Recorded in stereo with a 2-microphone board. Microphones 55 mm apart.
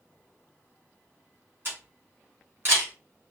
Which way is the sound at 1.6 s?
45° right (ahead or behind).